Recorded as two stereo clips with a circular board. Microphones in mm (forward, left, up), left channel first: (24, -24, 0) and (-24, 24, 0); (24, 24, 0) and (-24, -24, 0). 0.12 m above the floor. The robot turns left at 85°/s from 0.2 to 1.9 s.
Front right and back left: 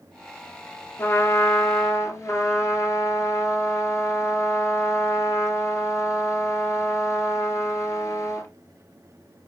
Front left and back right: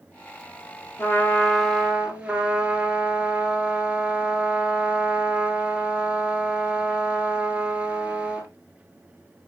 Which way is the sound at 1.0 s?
10° left.